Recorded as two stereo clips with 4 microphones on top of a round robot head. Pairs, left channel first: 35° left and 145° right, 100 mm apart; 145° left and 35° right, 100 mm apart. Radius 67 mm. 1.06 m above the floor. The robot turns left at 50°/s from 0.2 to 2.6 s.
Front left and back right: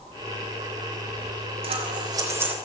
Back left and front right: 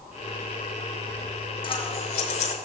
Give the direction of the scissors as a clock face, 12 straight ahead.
6 o'clock.